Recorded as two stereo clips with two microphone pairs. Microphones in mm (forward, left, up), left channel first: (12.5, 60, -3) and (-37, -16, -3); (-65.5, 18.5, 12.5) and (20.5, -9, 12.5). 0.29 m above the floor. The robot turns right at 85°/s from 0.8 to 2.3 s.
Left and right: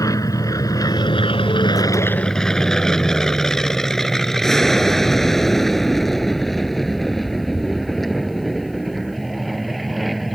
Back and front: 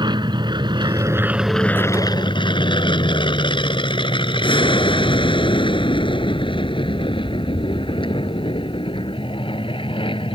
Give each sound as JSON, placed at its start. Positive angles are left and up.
{"t": 0.0, "sound": "an aircraft", "azimuth_deg": 10}